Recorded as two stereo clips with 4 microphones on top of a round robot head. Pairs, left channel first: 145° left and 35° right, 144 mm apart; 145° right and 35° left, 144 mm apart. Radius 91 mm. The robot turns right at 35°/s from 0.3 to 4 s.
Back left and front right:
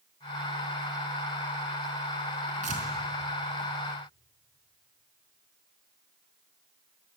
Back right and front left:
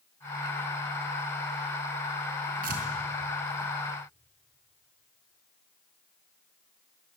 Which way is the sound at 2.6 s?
5° left.